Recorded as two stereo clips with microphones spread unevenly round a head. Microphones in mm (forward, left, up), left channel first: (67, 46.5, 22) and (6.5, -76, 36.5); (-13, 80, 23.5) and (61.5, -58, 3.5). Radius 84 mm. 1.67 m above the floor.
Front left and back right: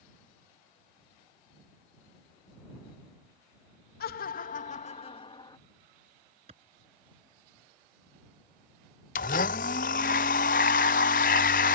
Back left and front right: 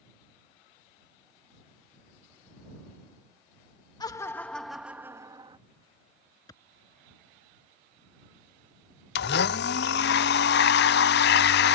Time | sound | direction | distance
4.0 | laughter | 55° left | ?
6.5 | a clap | 170° right | ?
9.2 | a blender | 110° left | ?